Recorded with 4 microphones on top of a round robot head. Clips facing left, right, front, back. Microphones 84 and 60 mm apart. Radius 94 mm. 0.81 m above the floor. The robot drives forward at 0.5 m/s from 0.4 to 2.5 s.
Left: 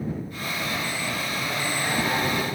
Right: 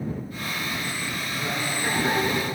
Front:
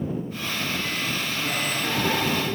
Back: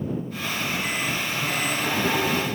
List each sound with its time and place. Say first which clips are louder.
1.3 s laughter: left 1 dB, back 1 dB; 135° right, 9.5 m